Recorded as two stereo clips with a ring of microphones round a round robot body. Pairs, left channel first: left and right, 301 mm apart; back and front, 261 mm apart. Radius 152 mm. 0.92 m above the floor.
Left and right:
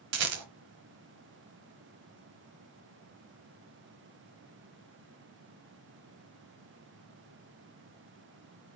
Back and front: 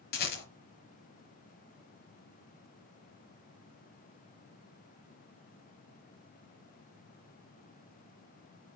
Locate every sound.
0.1 s a rattle: 125° right, 1.2 m